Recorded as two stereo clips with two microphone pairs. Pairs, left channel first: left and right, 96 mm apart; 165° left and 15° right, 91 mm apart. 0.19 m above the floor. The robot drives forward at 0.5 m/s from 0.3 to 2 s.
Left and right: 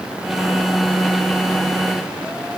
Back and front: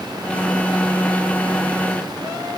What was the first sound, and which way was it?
Only background noise.